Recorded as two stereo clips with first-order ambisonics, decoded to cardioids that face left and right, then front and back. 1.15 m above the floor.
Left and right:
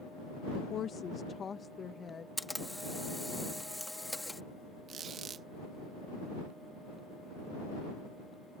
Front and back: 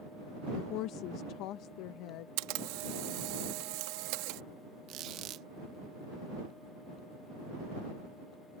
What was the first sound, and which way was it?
A woman speaking, 35° left.